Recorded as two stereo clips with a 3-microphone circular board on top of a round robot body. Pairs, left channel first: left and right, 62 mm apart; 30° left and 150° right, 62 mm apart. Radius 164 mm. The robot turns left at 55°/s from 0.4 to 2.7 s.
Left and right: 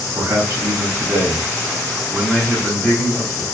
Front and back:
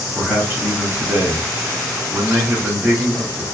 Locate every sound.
0.1 s a man speaking: 70° right, 1.8 m; by 3.5 s 165° left, 1.8 m